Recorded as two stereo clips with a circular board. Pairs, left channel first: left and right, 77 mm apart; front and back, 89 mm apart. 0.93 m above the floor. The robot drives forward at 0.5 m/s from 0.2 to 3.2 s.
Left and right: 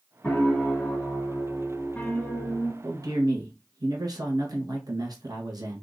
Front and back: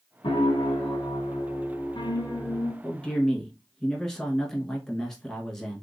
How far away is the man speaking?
About 1.2 m.